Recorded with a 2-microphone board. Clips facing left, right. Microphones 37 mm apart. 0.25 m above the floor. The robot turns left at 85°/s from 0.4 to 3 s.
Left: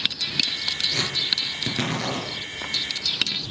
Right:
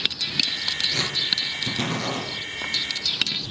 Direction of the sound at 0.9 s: 25° right (ahead or behind).